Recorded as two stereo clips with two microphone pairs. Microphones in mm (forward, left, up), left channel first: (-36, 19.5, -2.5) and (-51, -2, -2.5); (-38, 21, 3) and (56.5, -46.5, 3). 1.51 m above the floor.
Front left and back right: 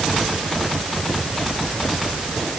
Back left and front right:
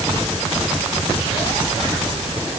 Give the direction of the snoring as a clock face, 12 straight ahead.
I don't hear snoring.